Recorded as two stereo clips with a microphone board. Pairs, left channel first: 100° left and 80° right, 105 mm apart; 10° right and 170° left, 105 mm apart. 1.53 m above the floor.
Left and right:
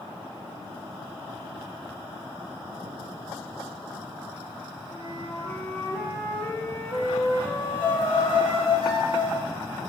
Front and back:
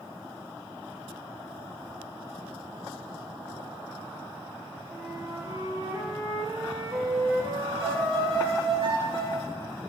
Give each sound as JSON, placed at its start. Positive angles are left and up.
{"t": 4.9, "sound": "a flute", "azimuth_deg": 145, "distance_m": 1.5}
{"t": 7.8, "sound": "a violin", "azimuth_deg": 140, "distance_m": 2.5}